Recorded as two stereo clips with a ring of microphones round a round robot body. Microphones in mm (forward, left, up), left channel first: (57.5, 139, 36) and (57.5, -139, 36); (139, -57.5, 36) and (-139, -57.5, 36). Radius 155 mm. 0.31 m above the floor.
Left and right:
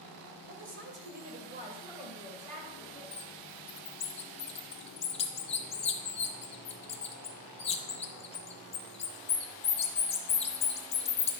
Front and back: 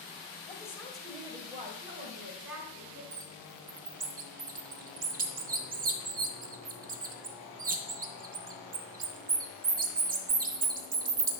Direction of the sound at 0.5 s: 70° right.